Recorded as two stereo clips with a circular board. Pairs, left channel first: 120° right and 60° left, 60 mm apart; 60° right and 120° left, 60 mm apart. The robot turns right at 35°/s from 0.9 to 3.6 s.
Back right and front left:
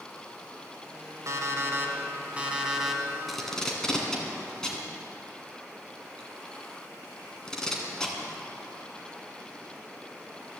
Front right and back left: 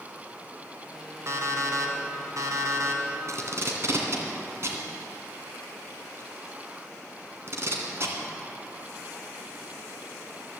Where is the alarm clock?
85° left, 1.7 m; by 3.0 s 150° left, 1.7 m.